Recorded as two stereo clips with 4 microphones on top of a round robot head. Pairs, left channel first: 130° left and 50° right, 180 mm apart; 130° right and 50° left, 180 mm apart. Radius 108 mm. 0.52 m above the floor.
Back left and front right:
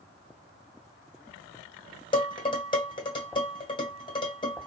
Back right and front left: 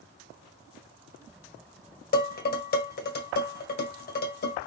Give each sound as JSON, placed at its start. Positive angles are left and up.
{"t": 2.1, "sound": "dishes clattering", "azimuth_deg": -165, "distance_m": 1.6}